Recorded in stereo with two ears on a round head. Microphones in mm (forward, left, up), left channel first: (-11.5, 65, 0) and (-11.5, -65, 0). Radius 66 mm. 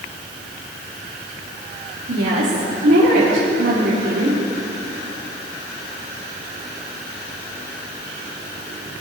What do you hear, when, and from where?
2.1 s a woman speaking: 75° right (ahead or behind), 3 m